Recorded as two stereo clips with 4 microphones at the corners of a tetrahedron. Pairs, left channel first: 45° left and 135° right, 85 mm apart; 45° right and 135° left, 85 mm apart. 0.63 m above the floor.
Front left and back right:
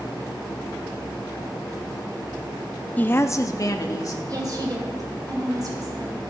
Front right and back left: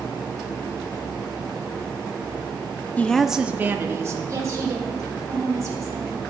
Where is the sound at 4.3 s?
175° right, 3 m.